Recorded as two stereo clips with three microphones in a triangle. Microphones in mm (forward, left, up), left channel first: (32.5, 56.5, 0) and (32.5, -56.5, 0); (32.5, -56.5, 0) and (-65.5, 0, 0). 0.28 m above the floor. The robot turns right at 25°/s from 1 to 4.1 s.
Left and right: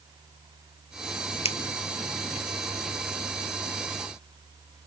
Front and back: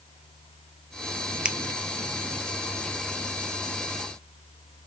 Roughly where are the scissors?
Left.